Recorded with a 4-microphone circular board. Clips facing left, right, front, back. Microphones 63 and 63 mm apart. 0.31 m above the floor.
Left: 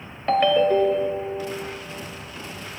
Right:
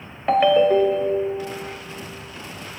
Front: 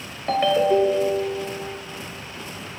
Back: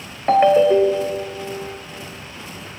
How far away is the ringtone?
About 0.6 m.